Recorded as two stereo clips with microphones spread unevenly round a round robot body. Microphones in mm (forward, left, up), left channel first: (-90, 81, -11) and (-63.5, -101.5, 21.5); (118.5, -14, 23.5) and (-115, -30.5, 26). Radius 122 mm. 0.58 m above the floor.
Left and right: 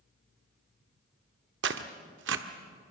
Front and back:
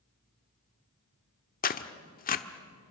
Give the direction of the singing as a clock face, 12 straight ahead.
I don't hear singing.